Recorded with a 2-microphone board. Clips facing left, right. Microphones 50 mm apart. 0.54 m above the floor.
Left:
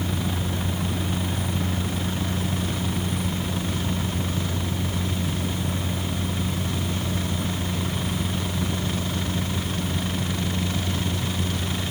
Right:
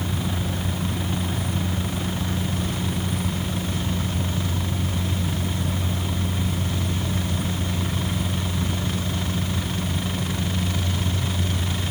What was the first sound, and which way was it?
Only background noise.